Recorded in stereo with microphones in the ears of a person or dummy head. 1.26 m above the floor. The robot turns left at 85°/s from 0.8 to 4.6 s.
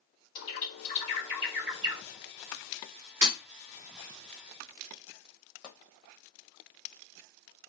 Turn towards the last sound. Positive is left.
turn(degrees=25)  # may be behind; listen again after turning